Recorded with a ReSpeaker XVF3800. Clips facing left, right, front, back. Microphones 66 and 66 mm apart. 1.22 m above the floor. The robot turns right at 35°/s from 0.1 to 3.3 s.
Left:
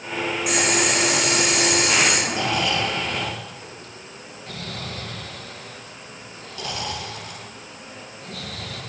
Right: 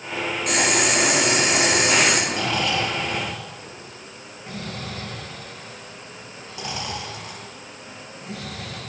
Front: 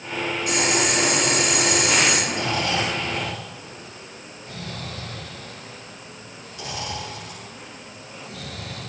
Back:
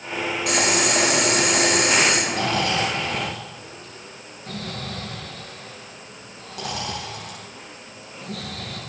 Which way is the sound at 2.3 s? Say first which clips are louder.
Even, back 1 dB; 165° left.